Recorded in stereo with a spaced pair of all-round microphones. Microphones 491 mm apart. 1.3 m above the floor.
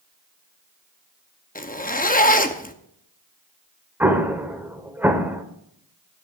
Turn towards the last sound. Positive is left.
turn(degrees=-5)  # may be behind; listen again after turning